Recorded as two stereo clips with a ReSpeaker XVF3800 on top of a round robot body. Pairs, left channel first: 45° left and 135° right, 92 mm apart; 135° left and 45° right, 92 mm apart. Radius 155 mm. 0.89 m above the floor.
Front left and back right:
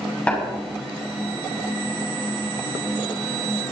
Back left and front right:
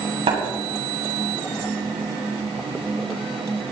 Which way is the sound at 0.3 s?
35° right.